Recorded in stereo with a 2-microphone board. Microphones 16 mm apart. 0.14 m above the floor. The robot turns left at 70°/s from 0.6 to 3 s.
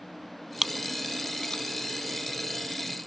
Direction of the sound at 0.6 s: 15° right (ahead or behind).